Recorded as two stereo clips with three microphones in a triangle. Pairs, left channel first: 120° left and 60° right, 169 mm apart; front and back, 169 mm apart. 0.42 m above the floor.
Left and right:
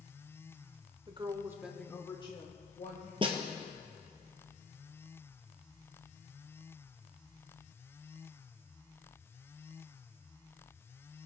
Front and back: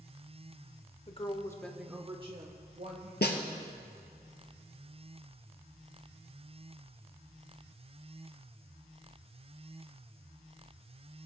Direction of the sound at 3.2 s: 5° right.